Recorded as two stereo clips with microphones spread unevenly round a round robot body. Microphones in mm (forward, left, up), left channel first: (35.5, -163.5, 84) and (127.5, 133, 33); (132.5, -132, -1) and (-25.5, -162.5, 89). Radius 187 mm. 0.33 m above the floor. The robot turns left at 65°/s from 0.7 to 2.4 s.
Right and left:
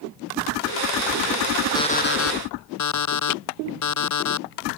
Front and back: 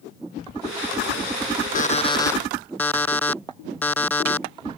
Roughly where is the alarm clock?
Ahead right.